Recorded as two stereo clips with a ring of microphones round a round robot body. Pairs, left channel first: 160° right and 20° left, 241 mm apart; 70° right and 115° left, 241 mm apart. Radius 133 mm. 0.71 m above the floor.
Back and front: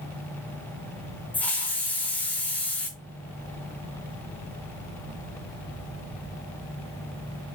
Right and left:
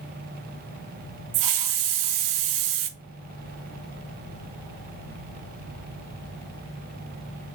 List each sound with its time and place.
1.3 s a hiss: 120° left, 0.6 m